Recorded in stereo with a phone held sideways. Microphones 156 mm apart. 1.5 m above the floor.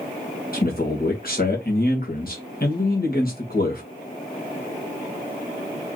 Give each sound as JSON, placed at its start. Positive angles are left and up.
{"t": 0.5, "sound": "a man speaking", "side_deg": 65, "distance_m": 1.5}